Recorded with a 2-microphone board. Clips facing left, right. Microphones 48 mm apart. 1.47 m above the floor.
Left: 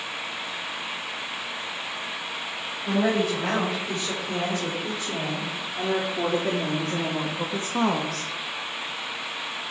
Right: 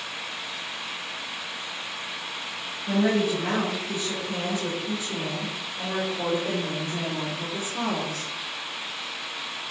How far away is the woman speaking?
About 6.5 m.